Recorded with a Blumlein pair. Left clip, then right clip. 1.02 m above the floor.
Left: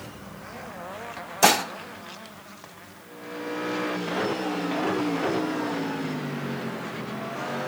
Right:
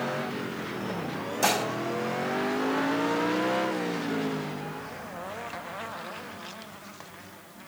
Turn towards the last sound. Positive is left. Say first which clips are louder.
# left 6 dB
turn(degrees=70)